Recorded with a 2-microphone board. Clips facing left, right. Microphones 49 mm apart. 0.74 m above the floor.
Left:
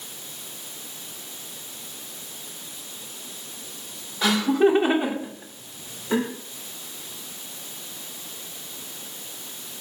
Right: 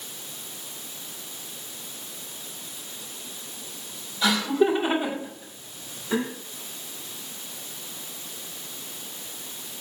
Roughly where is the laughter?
Left.